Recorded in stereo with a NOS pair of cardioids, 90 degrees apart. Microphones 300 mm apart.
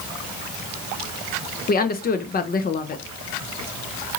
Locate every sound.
1.7 s a woman speaking: 30° left, 0.6 m